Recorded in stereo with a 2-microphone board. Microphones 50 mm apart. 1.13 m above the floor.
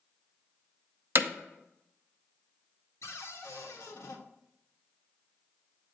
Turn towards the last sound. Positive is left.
turn(degrees=75)  # may be behind; listen again after turning